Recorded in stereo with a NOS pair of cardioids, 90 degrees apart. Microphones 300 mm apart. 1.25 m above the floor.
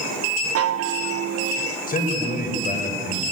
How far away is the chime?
About 1.0 m.